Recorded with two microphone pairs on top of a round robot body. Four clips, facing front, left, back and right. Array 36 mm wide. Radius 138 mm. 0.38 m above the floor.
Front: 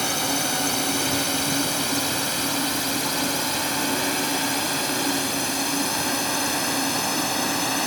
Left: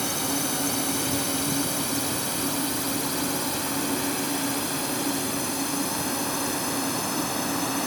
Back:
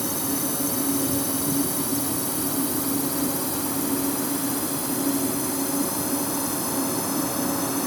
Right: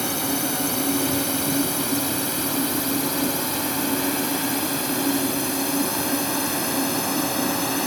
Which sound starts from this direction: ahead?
A drone, at 0.0 s.